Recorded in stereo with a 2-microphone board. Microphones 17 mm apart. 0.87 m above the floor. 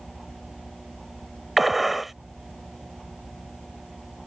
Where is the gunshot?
5° right (ahead or behind).